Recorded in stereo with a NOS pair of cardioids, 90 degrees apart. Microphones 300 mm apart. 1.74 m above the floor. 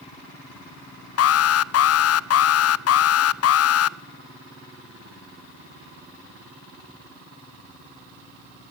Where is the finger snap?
No finger snap in this recording.